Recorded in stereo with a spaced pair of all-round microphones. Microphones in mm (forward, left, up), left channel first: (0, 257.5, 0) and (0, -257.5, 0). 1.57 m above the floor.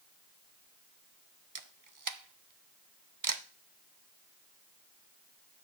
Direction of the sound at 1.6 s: 40° right (ahead or behind).